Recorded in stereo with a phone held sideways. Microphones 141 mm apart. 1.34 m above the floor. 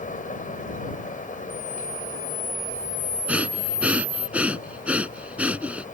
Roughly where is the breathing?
Centre.